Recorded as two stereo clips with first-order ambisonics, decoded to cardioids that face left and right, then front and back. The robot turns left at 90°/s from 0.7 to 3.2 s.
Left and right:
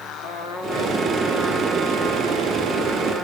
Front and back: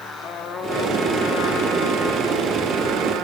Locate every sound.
0.2 s a trumpet: 60° left, 2.5 m; by 3.2 s 165° right, 2.5 m